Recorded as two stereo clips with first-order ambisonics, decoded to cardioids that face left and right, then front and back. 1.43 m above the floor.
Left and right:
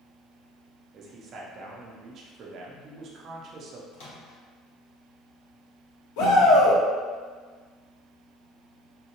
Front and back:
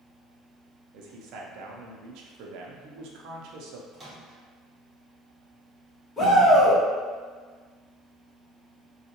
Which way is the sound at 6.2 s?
75° left.